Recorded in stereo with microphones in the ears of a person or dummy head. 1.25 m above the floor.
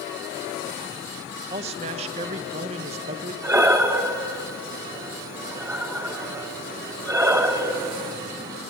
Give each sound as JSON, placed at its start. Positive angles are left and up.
{"t": 1.5, "sound": "a man speaking", "side_deg": -35, "distance_m": 1.4}
{"t": 3.4, "sound": "breathing", "side_deg": -15, "distance_m": 1.0}